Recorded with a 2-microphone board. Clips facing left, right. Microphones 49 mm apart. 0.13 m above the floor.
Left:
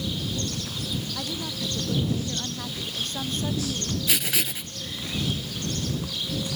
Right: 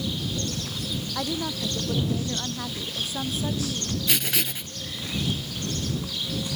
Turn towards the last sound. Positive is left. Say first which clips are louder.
# right 1 dB
turn(degrees=0)  # may be behind; listen again after turning